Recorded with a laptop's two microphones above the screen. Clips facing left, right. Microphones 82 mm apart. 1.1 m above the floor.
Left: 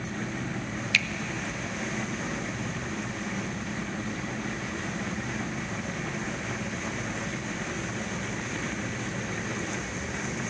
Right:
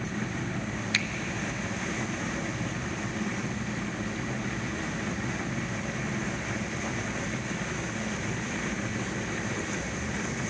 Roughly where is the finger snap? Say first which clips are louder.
Left 3 dB; right.